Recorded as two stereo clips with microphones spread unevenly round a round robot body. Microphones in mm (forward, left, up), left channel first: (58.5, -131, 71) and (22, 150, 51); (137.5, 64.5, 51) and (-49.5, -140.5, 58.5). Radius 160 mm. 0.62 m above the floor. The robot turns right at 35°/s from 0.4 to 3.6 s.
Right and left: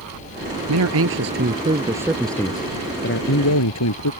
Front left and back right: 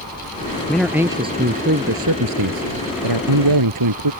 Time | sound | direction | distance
0.7 | a man speaking | 135° left | ?